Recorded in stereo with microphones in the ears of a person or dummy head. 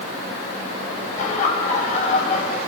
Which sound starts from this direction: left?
Laughter, at 1.2 s.